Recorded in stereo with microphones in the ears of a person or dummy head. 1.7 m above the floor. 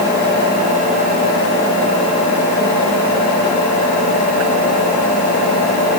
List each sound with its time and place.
Only background noise.